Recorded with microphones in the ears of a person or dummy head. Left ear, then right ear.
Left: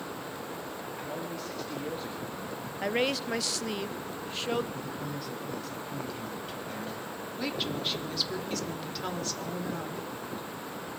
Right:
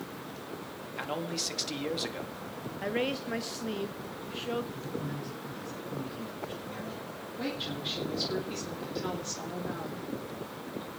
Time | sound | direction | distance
1.0 | a man speaking | 45° right (ahead or behind) | 2.5 m
2.8 | a woman speaking | 25° left (ahead or behind) | 0.8 m
4.7 | a man speaking | 75° left (ahead or behind) | 8 m
7.4 | a woman speaking | 25° left (ahead or behind) | 3 m